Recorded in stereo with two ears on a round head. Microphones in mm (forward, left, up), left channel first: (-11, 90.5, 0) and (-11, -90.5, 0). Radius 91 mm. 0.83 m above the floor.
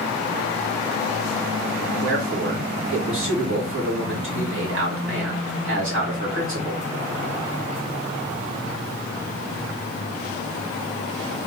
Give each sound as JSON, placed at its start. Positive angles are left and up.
{"t": 2.0, "sound": "a man speaking", "side_deg": -70, "distance_m": 2.5}